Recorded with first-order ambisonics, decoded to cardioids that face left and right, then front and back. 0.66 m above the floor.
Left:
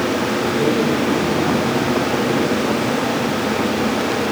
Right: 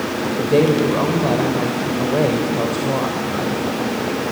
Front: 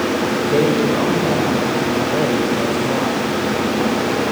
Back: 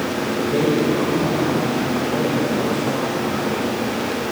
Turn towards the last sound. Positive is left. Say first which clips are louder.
# right 6 dB, front 2 dB
turn(degrees=-70)